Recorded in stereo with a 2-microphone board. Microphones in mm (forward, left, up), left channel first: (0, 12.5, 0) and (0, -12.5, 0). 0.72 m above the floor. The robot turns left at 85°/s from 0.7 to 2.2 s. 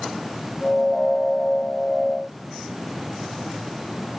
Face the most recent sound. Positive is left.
No sound to turn to.